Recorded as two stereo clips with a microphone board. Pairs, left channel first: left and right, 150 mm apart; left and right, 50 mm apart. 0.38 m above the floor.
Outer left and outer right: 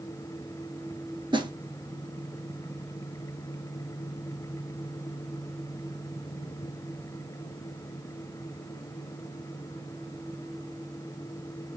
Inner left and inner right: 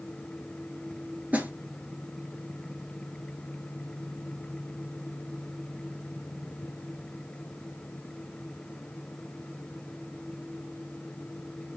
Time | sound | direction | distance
1.3 | a snare drum | 35° right (ahead or behind) | 1.2 m